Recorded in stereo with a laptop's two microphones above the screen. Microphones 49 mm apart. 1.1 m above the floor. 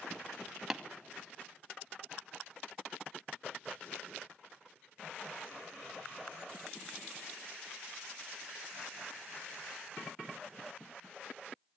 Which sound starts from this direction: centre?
Tapping, at 0.7 s.